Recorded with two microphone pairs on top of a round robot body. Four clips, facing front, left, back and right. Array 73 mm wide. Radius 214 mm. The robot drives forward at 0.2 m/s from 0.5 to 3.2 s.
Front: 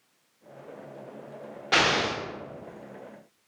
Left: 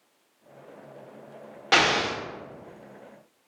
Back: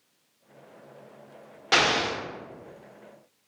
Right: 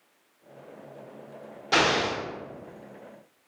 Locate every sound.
1.7 s an explosion: 110° left, 0.9 m; by 2.2 s 115° left, 0.9 m